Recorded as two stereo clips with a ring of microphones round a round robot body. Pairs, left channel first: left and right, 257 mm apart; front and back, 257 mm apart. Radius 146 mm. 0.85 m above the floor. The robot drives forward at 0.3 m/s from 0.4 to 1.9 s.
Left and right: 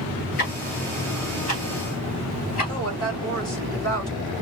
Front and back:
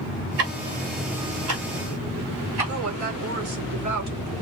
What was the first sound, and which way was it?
Ticking, 150° left.